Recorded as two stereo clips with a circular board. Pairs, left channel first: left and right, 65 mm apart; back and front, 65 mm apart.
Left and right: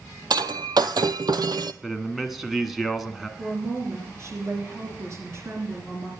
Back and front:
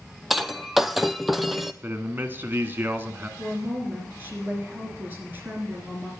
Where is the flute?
I don't hear a flute.